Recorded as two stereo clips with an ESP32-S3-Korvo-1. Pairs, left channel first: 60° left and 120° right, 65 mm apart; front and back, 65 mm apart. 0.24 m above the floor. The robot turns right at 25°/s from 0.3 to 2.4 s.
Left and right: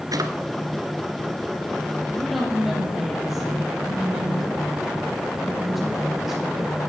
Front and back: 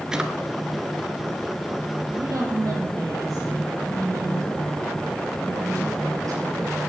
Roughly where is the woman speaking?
Behind left.